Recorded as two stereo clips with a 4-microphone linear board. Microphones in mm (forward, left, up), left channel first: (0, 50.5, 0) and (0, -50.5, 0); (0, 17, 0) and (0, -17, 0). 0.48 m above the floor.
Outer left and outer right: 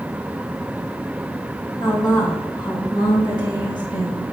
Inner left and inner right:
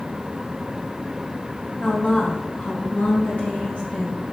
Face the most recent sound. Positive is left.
turn(degrees=45)  # may be behind; listen again after turning